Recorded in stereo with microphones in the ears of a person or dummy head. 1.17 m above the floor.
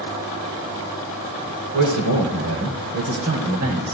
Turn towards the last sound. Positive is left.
turn(degrees=-80)